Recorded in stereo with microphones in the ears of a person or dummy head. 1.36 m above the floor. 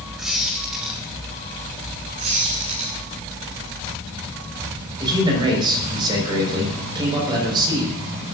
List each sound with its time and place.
0.2 s a squeak: centre (ahead or behind), 3.5 m
2.2 s a squeak: 35° right (ahead or behind), 7 m
5.0 s a man speaking: 25° right (ahead or behind), 5.5 m